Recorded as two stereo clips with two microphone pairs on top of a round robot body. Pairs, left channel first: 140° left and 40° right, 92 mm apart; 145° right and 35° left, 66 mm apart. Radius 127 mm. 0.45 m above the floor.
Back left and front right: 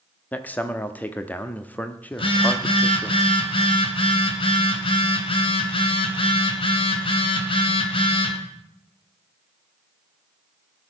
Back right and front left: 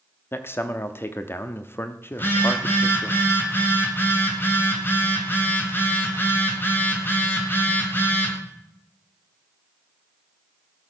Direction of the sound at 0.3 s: 175° right.